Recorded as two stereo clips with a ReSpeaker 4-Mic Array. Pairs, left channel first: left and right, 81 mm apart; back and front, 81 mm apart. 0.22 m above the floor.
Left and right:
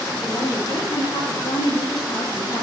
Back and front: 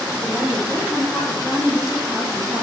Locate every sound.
0.2 s a woman speaking: 100° left, 6.5 m; by 2.6 s 115° left, 6 m